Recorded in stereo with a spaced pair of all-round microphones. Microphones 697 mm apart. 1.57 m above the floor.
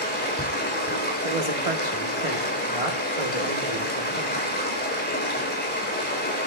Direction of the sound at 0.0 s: 15° left (ahead or behind).